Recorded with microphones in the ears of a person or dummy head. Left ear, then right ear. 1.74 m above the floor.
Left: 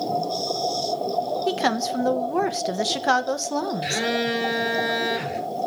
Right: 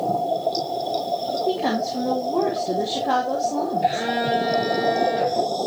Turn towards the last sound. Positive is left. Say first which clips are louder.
# right 2 dB
turn(degrees=50)  # may be behind; listen again after turning